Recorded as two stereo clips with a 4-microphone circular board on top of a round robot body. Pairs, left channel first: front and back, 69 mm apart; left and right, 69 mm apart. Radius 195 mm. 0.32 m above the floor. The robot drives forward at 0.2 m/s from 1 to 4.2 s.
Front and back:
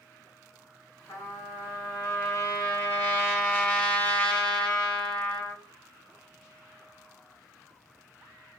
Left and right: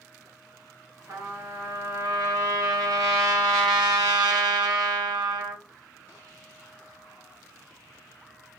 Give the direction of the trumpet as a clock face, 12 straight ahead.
1 o'clock.